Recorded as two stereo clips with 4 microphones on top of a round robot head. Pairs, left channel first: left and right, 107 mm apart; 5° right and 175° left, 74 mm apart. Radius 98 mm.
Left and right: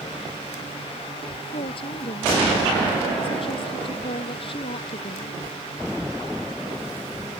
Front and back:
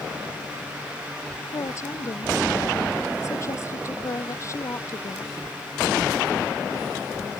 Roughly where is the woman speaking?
Ahead left.